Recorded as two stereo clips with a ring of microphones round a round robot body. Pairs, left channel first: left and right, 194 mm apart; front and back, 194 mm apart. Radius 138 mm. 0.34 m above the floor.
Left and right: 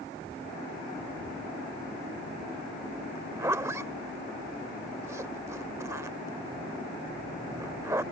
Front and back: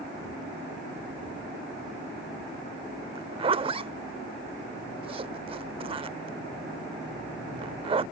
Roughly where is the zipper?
Behind right.